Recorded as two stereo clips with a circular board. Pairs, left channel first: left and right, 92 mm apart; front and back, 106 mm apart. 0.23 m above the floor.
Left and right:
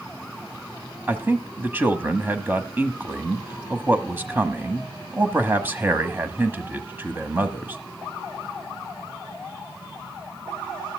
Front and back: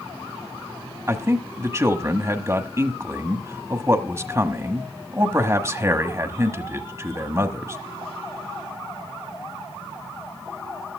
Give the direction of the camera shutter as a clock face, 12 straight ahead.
I don't hear a camera shutter.